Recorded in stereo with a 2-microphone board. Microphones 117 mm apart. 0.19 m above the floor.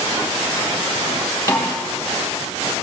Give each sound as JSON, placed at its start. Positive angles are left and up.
{"t": 1.5, "sound": "a snare drum", "side_deg": 25, "distance_m": 5.5}